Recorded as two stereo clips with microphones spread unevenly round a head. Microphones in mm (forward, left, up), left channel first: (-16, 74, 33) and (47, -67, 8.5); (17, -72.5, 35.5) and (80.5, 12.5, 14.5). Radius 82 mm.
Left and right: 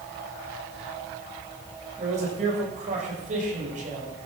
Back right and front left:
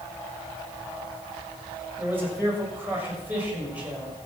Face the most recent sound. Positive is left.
turn(degrees=-25)